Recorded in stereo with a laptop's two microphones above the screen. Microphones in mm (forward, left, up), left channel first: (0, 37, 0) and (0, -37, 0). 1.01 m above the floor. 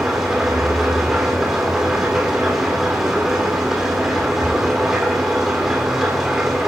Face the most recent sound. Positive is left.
turn(degrees=-10)  # may be behind; listen again after turning